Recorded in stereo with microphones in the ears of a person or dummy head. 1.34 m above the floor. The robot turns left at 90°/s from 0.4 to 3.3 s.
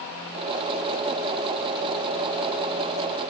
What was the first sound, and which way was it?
Only background noise.